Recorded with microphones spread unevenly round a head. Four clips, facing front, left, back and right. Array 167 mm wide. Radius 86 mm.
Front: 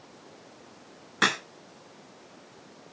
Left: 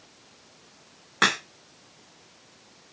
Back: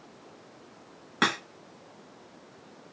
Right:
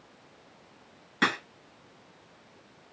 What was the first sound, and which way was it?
A crack, 145° left.